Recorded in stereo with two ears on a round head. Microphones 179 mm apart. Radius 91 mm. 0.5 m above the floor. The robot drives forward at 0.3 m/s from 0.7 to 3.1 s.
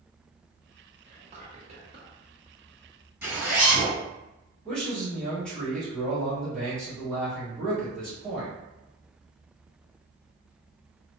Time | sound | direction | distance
1.1 | whispering | 35° right (ahead or behind) | 0.8 m
3.2 | a zipper | 10° right (ahead or behind) | 1.7 m
4.7 | a man speaking | 5° left (ahead or behind) | 1.2 m